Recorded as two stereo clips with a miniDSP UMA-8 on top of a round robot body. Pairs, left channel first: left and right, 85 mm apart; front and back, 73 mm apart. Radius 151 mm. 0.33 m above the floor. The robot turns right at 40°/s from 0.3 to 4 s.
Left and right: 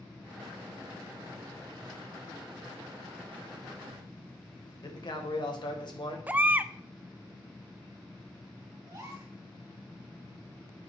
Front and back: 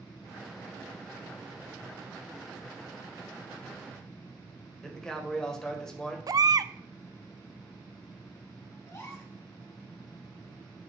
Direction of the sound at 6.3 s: 160° right.